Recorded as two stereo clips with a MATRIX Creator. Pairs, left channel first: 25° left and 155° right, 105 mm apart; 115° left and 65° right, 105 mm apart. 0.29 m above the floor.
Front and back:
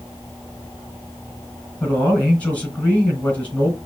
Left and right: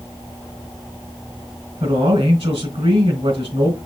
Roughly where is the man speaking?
Ahead right.